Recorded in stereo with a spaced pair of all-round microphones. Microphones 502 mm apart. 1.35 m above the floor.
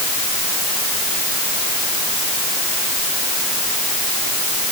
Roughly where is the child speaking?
No child speaking in this recording.